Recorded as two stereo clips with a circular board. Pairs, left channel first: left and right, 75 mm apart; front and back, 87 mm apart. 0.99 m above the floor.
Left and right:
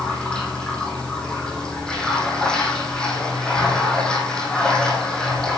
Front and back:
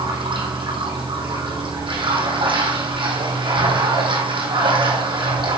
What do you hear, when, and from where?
0.0 s running water: 170° left, 4.5 m